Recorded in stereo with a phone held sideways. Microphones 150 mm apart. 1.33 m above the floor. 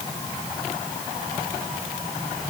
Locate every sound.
Only background noise.